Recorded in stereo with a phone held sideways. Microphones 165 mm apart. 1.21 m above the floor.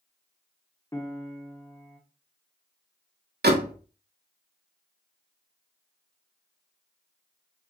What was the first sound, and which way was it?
A piano, 20° left (ahead or behind).